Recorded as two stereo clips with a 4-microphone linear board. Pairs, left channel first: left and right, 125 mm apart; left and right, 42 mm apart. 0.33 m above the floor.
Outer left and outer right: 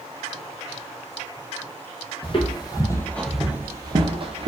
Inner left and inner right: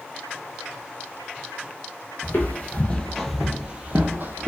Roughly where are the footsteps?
Left.